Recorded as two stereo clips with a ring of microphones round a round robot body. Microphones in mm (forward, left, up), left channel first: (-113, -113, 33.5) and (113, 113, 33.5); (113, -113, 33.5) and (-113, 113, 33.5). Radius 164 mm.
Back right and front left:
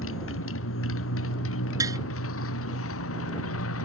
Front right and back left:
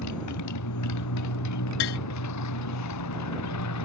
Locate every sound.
0.0 s a motorcycle: 85° right
1.8 s tapping: 35° right